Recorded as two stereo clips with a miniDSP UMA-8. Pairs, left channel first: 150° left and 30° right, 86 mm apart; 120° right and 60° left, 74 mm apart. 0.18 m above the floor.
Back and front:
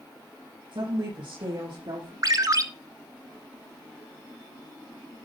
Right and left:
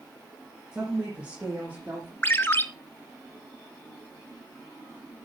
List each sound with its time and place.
0.7 s a woman speaking: 20° right, 6.5 m; by 2.1 s 5° right, 7 m
2.2 s a ringtone: 65° right, 1.2 m